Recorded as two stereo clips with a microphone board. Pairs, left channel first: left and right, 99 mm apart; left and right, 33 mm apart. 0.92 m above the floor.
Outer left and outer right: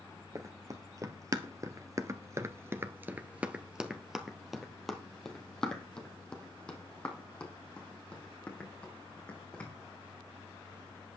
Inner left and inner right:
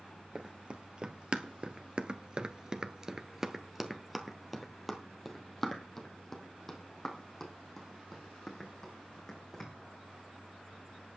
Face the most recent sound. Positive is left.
turn(degrees=15)  # may be behind; listen again after turning